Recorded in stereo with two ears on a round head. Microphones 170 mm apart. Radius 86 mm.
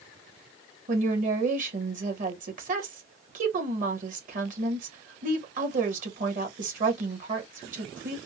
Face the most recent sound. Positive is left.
turn(degrees=-45)  # may be behind; listen again after turning